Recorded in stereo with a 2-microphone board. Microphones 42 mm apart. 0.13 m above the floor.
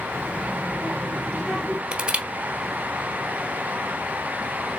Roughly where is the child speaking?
Left.